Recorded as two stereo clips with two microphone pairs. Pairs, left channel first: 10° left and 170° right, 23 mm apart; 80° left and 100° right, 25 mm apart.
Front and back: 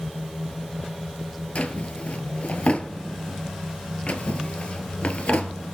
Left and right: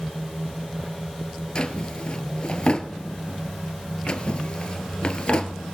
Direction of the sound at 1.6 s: 30° left.